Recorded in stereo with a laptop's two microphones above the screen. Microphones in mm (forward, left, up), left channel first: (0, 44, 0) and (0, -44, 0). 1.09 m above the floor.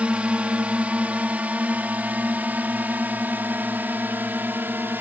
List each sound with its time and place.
0.0 s a drone: 15° right (ahead or behind); by 5.0 s 25° right (ahead or behind)